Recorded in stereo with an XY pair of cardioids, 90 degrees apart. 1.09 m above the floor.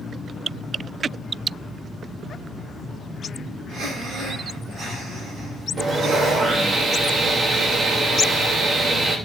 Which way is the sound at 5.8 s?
55° right.